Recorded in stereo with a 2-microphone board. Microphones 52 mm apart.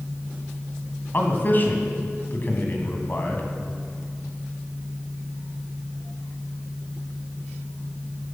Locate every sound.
1.1 s a man speaking: 40° left (ahead or behind), 2 m